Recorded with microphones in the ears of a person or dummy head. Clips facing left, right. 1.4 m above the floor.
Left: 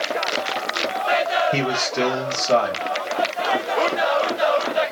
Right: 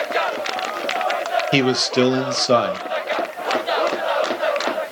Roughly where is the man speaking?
Right.